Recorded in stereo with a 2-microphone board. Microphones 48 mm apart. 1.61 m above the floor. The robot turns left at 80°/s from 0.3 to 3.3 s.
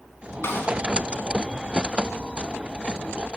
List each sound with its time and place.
0.4 s a snare drum: 55° left (ahead or behind), 3 m; by 0.7 s 35° left (ahead or behind), 3 m